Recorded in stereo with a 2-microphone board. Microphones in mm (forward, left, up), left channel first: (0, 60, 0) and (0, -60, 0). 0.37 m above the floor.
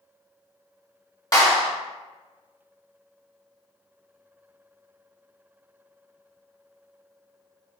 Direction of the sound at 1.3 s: 30° left (ahead or behind).